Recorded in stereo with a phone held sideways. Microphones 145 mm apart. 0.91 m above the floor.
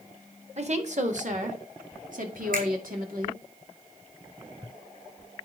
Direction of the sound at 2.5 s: 85° right.